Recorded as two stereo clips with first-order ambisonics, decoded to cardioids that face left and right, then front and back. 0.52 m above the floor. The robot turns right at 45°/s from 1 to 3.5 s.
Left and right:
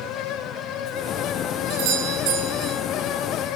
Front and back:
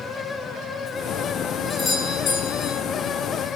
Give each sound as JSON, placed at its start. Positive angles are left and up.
{"t": 1.7, "sound": "a doorbell", "azimuth_deg": -75, "distance_m": 5.5}